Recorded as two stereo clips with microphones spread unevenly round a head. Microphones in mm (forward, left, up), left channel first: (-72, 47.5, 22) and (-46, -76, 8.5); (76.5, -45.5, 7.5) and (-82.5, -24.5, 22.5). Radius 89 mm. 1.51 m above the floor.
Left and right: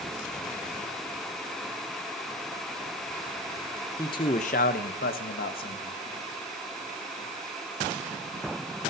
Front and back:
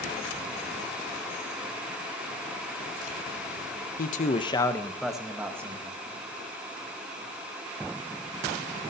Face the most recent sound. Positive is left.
turn(degrees=100)